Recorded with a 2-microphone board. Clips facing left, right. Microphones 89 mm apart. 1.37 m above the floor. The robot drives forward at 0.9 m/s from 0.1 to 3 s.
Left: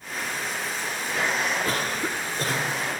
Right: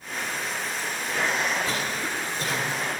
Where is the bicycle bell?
I don't hear a bicycle bell.